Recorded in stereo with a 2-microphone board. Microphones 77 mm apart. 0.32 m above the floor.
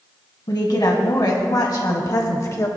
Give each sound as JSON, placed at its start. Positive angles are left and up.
{"t": 0.5, "sound": "a woman speaking", "side_deg": 65, "distance_m": 2.0}